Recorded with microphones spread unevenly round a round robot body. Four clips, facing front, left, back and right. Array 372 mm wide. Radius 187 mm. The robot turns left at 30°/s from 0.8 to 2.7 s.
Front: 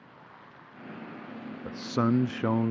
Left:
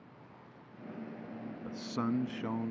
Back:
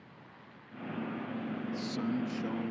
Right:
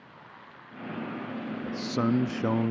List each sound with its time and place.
1.6 s a man speaking: 20° right; by 2.7 s 50° right